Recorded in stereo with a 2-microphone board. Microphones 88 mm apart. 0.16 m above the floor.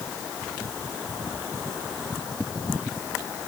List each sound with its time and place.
Only background noise.